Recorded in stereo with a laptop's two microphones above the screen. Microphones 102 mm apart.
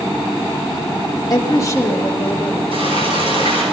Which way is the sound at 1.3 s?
40° left (ahead or behind).